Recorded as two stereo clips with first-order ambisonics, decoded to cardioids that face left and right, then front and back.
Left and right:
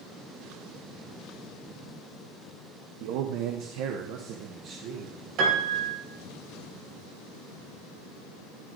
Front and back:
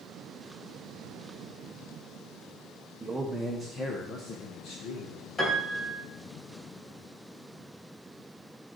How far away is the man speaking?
About 0.9 m.